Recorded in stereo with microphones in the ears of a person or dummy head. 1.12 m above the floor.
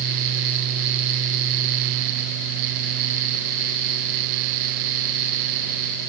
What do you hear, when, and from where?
Only background noise.